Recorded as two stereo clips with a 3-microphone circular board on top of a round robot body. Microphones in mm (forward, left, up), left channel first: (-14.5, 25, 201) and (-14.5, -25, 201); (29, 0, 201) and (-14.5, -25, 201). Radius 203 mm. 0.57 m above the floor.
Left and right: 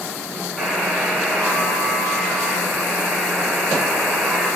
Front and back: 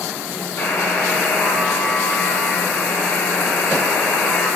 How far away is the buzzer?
About 6 m.